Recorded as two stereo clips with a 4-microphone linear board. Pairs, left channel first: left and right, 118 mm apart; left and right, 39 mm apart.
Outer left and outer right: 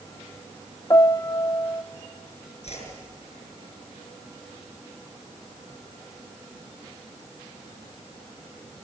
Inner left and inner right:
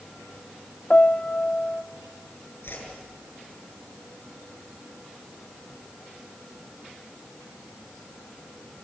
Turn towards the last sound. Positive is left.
turn(degrees=70)  # may be behind; listen again after turning